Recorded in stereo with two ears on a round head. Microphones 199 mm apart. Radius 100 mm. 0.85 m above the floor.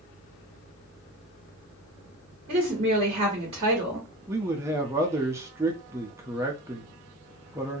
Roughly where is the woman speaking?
Right.